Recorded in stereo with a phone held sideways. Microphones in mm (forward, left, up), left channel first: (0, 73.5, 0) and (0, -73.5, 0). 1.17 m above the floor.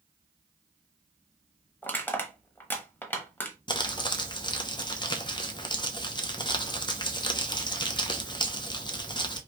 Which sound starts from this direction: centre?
Crushing, at 1.8 s.